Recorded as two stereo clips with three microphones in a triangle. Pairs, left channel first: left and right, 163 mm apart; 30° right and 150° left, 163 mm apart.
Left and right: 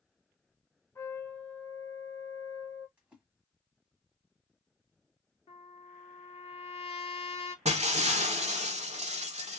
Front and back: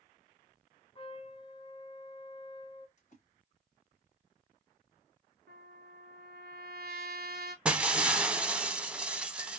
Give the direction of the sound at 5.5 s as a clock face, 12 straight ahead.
7 o'clock.